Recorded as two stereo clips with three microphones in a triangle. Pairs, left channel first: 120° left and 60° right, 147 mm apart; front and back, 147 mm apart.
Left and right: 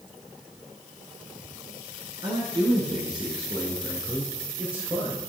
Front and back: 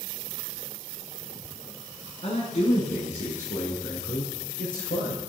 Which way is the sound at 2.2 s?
15° right.